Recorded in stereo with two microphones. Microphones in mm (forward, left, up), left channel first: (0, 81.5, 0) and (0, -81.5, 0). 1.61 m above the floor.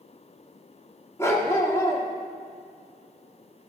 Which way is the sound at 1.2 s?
15° left (ahead or behind).